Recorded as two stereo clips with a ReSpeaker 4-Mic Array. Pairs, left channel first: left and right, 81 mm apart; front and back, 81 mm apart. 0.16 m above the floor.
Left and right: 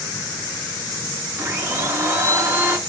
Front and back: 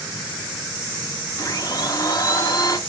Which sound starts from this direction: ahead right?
A blender, at 1.4 s.